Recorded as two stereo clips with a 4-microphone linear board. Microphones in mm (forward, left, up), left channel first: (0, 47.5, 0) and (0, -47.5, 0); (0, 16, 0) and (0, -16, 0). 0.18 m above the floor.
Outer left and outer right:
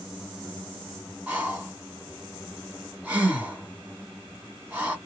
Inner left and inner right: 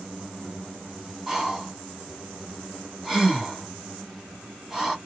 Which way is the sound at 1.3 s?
15° right (ahead or behind).